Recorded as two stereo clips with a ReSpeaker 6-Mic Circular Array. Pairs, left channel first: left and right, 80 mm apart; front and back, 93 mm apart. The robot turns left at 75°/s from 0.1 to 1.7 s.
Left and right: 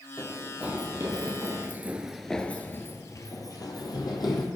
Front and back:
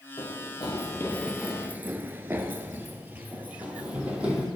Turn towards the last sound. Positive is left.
turn(degrees=105)